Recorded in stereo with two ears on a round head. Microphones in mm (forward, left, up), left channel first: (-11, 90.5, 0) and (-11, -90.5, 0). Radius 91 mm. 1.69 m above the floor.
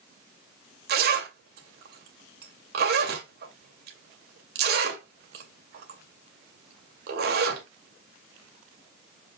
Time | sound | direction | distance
0.9 | a zipper | 50° right (ahead or behind) | 2 m